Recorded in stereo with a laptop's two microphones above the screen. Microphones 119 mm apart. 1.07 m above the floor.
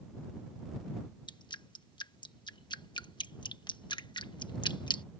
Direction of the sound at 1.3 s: 40° left (ahead or behind).